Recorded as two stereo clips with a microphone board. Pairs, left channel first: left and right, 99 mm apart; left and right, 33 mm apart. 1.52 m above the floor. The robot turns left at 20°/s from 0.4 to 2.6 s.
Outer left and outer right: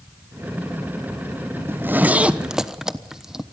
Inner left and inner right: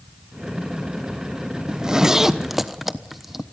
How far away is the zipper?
About 1.1 m.